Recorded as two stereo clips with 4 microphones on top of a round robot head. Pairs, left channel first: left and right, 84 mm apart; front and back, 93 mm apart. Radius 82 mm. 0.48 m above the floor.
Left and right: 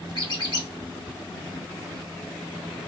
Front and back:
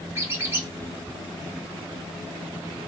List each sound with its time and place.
0.1 s a squeak: 120° left, 2.0 m